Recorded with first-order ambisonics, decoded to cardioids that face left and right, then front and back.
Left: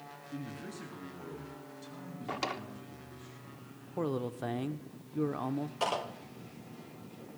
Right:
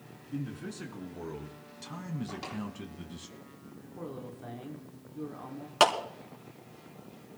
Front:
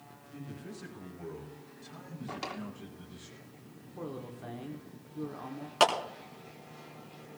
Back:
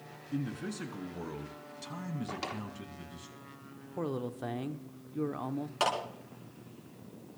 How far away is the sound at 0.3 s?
About 3.5 m.